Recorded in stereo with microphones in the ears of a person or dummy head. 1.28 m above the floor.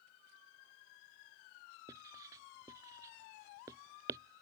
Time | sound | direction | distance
1.9 | writing | 15° right (ahead or behind) | ?